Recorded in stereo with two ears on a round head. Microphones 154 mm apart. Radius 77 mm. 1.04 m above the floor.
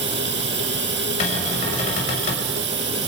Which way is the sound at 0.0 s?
70° right (ahead or behind).